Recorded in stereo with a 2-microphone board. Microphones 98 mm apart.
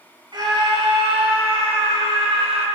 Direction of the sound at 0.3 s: 45° right (ahead or behind).